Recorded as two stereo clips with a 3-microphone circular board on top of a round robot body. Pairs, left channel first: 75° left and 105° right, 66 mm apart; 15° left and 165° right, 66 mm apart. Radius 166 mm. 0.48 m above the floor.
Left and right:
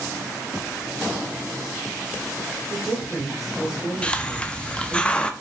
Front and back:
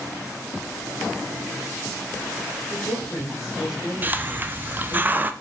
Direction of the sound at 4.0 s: 145° left.